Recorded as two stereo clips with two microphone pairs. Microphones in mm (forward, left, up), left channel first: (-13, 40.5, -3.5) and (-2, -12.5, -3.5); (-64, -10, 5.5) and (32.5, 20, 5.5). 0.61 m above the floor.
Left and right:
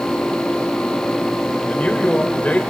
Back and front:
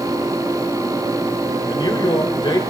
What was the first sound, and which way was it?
A man speaking, 160° left.